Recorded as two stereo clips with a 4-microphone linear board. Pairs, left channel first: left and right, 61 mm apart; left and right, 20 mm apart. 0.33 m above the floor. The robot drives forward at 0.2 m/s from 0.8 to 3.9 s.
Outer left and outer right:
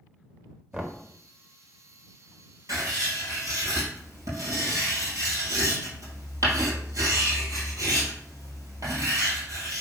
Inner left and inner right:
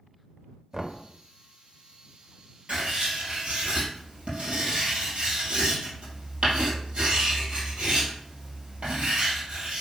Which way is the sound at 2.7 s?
65° right (ahead or behind).